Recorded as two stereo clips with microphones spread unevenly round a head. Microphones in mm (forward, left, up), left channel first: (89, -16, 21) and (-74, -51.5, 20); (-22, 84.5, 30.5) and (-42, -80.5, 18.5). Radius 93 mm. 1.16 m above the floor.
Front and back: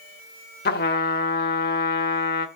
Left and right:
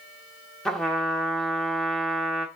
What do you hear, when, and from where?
0.7 s a trumpet: straight ahead, 1.1 m